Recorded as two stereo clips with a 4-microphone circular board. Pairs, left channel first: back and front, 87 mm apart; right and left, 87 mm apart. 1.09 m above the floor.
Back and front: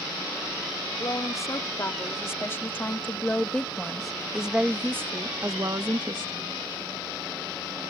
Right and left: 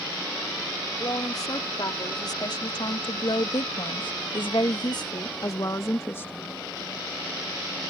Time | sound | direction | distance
1.0 | a woman speaking | 130° right | ?